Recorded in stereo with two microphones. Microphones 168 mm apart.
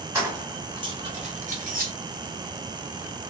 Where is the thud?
I don't hear a thud.